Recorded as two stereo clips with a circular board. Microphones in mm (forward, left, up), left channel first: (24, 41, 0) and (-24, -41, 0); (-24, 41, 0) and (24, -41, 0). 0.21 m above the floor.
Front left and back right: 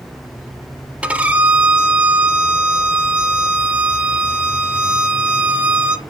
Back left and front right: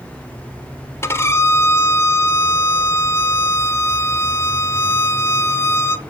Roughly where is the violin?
Behind.